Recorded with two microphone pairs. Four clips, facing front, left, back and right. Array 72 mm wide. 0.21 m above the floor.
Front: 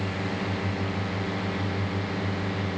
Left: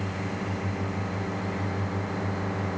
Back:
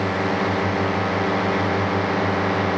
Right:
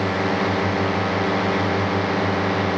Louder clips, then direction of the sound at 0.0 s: Right 11 dB, back 9 dB; 140° right.